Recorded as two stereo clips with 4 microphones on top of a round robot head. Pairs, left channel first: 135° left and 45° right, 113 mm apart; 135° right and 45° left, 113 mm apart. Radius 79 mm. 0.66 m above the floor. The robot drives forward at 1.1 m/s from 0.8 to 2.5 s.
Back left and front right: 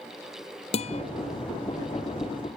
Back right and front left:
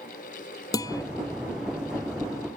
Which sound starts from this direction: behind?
A guitar, at 0.7 s.